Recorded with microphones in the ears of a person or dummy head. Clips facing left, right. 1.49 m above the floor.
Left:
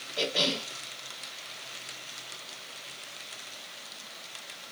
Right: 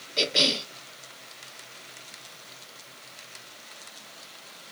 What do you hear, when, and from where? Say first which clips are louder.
0.2 s a cough: right 2 dB; 35° right (ahead or behind), 0.9 m